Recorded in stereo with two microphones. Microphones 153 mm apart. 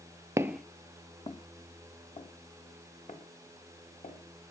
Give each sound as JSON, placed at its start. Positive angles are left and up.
{"t": 0.4, "sound": "footsteps", "side_deg": -20, "distance_m": 0.9}